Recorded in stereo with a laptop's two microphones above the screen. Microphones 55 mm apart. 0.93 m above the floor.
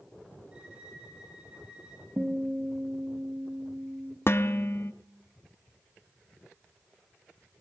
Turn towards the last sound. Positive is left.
turn(degrees=50)  # may be behind; listen again after turning